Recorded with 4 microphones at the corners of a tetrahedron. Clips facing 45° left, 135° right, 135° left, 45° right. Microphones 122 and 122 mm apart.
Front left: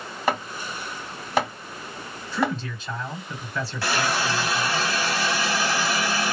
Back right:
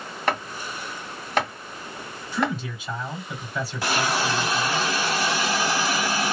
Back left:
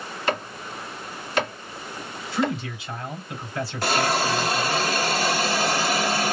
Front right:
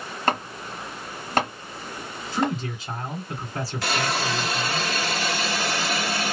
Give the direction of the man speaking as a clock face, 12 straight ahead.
2 o'clock.